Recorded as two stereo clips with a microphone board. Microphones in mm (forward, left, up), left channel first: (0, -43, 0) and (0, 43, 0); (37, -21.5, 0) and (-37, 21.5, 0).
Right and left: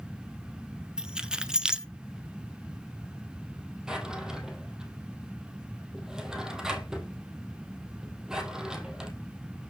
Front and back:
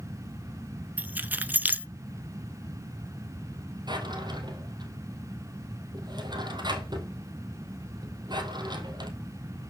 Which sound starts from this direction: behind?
A drawer, at 3.9 s.